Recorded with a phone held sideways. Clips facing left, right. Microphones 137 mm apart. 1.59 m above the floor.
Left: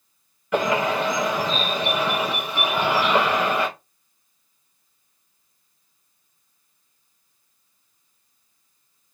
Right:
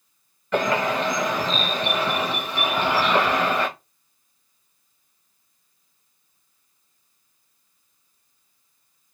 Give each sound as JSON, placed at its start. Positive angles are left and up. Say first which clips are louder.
{"t": 0.5, "sound": "a bird", "louder": "left 1 dB", "side_deg": 10, "distance_m": 1.2}